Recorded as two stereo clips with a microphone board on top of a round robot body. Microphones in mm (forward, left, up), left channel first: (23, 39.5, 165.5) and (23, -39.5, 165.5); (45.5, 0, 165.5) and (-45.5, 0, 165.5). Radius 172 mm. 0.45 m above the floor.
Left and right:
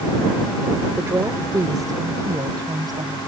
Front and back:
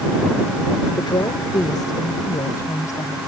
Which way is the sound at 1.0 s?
35° right.